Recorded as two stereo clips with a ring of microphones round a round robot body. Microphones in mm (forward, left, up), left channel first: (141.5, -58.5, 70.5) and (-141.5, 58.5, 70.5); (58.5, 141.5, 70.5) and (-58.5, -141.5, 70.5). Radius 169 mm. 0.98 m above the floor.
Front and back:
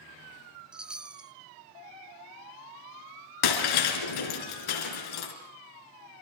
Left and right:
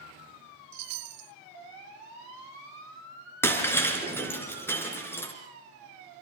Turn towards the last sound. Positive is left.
turn(degrees=-15)